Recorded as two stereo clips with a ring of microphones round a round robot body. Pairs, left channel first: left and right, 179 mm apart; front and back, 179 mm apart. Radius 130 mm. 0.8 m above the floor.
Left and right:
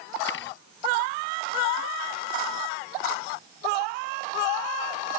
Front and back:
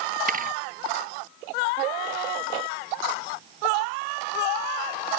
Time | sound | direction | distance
0.3 | a thud | 140° left | ?